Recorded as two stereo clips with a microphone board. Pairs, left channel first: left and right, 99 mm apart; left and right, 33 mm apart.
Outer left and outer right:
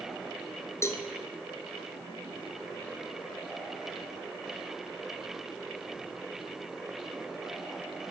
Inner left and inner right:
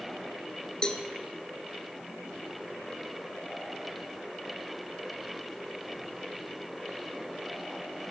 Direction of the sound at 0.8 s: 30° left (ahead or behind).